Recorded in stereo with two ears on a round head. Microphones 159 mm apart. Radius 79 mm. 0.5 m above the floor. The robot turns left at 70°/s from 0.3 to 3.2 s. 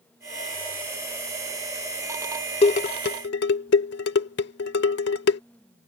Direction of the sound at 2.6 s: 30° left (ahead or behind).